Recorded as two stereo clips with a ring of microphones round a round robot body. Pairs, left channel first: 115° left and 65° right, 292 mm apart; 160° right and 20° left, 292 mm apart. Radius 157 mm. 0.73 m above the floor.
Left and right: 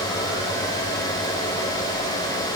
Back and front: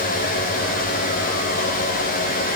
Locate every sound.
Only background noise.